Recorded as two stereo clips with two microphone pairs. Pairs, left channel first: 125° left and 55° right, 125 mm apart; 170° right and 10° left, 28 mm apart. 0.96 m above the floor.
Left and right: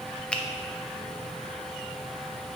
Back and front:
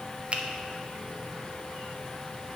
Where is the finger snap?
45° left, 0.7 m.